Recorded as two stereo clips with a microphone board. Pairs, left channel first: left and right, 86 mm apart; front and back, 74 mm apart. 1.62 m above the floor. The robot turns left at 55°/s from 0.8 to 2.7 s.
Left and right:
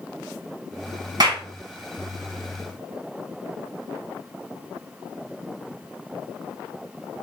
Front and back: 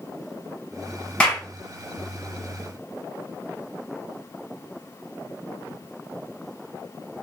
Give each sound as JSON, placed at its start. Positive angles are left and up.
{"t": 1.2, "sound": "a clap", "azimuth_deg": -75, "distance_m": 1.2}